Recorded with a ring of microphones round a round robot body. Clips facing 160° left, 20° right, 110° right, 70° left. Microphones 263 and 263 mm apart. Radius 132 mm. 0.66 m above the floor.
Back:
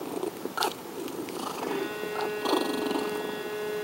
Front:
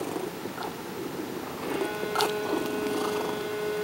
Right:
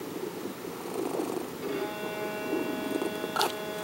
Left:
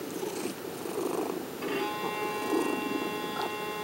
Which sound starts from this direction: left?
A violin, at 1.6 s.